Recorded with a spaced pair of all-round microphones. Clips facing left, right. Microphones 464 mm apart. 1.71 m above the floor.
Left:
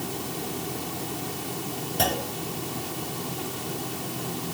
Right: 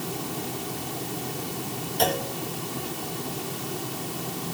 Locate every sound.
2.0 s a clunk: 65° left (ahead or behind), 4 m